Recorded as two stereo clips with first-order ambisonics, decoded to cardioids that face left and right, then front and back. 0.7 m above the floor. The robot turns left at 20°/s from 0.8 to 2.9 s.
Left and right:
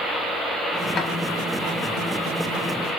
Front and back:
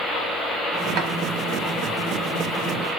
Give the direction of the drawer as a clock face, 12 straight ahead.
7 o'clock.